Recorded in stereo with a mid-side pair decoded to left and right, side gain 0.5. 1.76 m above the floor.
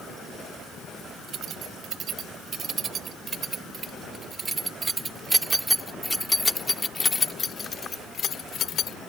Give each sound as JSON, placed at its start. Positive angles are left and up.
{"t": 1.3, "sound": "keys jangling", "azimuth_deg": -60}